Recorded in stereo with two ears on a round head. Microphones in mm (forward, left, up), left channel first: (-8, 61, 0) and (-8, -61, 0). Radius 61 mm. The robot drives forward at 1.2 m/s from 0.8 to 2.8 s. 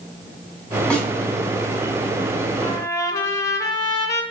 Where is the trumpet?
35° left (ahead or behind), 0.6 m; by 4.2 s 25° left (ahead or behind), 0.8 m.